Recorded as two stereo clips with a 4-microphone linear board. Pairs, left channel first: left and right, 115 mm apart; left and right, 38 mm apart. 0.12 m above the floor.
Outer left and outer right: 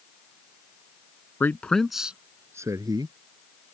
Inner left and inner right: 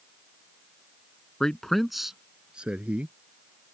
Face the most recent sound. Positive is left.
turn(degrees=-40)  # may be behind; listen again after turning